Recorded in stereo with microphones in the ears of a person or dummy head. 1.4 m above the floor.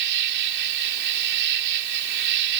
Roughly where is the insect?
Right.